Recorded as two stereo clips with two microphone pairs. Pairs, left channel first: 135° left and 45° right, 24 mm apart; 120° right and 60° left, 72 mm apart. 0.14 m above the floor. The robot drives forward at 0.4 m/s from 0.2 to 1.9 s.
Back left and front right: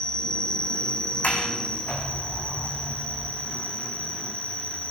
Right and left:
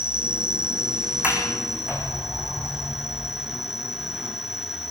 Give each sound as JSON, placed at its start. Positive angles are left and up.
{"t": 0.0, "sound": "an insect", "azimuth_deg": 130, "distance_m": 2.5}
{"t": 1.2, "sound": "a sliding door", "azimuth_deg": 130, "distance_m": 5.5}